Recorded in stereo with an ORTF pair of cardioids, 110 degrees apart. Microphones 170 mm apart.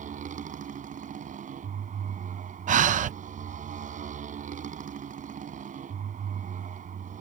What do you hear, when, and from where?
0.0 s a motorcycle: 50° right
2.7 s breathing: 50° right